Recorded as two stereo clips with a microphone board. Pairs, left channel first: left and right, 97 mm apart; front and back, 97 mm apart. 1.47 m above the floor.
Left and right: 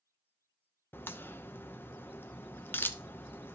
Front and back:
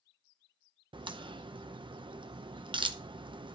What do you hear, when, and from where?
0.9 s a crack: 155° left, 0.8 m